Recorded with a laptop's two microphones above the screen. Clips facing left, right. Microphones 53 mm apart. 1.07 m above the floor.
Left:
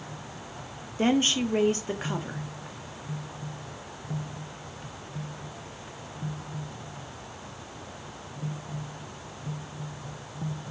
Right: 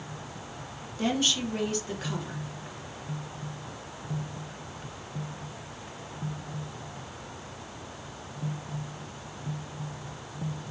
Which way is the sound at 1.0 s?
35° left (ahead or behind).